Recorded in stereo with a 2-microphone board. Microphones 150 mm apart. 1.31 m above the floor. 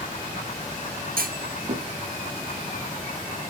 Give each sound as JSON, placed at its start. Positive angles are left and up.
{"t": 1.2, "sound": "a clunk", "side_deg": -75, "distance_m": 1.1}